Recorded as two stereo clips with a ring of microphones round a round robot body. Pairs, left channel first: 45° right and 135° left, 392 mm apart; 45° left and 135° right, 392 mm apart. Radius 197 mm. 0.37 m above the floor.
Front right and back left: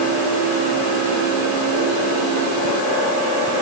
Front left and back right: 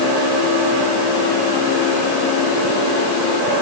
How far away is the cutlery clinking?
No cutlery clinking in this recording.